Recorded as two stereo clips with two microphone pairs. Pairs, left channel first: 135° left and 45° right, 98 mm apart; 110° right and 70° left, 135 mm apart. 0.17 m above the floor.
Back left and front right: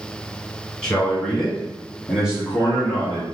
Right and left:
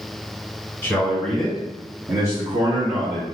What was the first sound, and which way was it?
A man speaking, 160° right.